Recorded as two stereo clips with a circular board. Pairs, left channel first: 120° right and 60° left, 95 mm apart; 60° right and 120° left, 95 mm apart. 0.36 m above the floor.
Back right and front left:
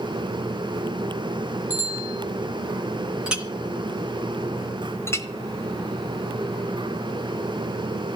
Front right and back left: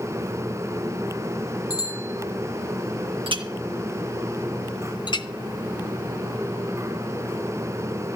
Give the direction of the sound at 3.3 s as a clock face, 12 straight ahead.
7 o'clock.